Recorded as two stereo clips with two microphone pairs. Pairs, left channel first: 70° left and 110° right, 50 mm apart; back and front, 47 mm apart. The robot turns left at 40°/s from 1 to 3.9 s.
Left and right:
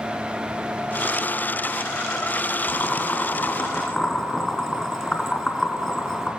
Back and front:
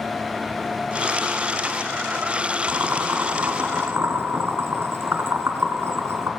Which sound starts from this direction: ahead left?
Boiling, at 2.7 s.